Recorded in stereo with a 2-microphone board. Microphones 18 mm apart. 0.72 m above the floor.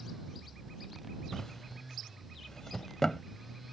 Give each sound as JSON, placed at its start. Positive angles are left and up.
{"t": 1.3, "sound": "a drawer", "side_deg": 30}